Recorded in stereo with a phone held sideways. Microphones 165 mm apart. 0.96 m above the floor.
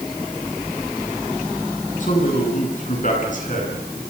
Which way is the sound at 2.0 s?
50° left (ahead or behind).